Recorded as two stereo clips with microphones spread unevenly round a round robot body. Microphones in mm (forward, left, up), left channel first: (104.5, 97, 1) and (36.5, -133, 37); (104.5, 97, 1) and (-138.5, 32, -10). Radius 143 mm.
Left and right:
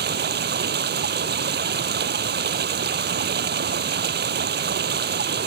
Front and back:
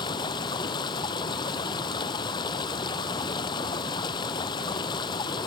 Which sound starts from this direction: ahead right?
Running water, at 0.0 s.